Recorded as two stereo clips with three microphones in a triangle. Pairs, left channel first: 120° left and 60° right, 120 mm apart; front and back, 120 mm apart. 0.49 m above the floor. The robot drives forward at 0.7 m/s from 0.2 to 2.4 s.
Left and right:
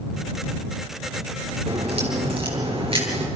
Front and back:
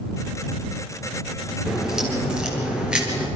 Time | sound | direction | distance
1.7 | a crack | 95° right | 6 m